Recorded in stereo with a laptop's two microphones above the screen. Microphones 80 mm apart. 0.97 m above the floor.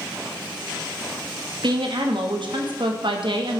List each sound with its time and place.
1.6 s a woman speaking: 70° right (ahead or behind), 1.0 m